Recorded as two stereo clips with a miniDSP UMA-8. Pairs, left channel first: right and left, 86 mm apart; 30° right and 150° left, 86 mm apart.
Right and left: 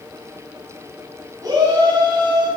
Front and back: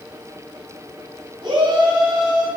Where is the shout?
135° left, 2.5 m; by 2.5 s 125° left, 2.5 m.